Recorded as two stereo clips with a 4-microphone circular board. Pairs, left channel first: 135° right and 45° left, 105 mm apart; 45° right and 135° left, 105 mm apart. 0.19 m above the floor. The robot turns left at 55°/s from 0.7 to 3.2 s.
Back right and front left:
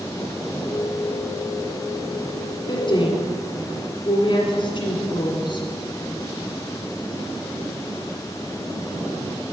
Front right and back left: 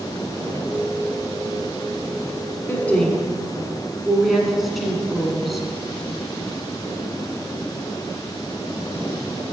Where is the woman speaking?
110° right, 1.8 m; by 5.7 s 135° right, 1.8 m.